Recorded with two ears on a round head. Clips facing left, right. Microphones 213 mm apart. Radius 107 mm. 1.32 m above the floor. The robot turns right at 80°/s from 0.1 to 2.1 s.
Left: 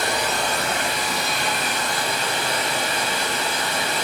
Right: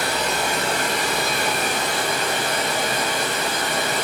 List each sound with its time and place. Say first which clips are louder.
0.0 s running water: right 1 dB; 160° left, 3 m; by 4.0 s 40° right, 3 m